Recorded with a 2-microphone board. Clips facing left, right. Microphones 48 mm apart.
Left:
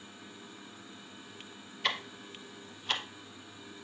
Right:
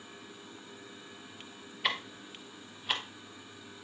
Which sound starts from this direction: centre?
Ticking, at 1.8 s.